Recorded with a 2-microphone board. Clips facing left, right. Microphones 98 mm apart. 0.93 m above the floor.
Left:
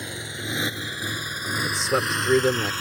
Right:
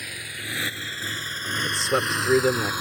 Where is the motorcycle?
25° left (ahead or behind); by 2.8 s 15° right (ahead or behind).